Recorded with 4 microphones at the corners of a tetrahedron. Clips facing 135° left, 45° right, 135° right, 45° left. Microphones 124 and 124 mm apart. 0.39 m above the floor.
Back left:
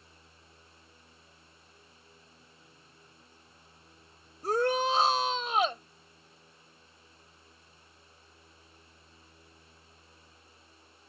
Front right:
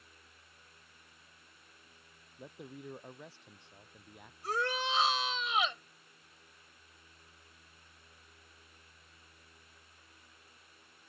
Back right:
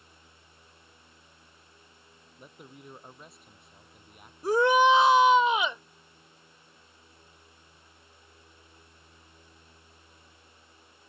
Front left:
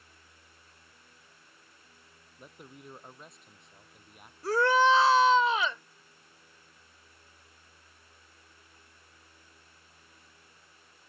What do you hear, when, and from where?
2.4 s a man speaking: 45° right
4.4 s a shout: 160° left